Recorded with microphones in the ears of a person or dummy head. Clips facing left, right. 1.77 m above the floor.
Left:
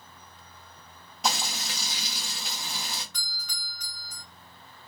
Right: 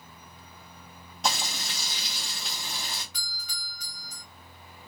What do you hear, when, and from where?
1.2 s frying: 5° left (ahead or behind), 0.9 m
3.1 s a doorbell: 5° right (ahead or behind), 1.8 m